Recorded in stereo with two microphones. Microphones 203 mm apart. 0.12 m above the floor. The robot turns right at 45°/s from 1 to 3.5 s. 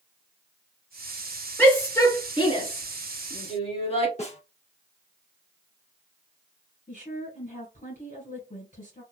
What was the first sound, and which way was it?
A shout, 5° left (ahead or behind).